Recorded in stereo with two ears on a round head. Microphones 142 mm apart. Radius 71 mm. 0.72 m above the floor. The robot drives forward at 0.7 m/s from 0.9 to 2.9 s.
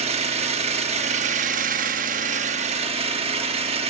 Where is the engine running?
40° right (ahead or behind), 1.1 m.